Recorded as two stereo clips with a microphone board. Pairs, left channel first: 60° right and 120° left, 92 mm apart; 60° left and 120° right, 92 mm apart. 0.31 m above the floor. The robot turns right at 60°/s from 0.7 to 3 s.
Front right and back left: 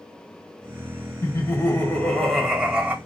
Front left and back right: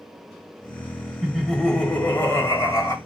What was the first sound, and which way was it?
Laughter, 45° right.